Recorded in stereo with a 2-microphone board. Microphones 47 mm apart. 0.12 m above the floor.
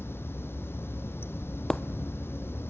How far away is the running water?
About 0.9 m.